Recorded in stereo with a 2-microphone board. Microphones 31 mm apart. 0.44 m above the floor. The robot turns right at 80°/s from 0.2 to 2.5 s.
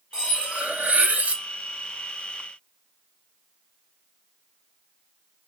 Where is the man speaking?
No man speaking in this recording.